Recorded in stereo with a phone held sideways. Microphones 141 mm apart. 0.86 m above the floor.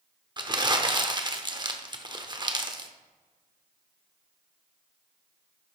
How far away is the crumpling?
About 0.8 m.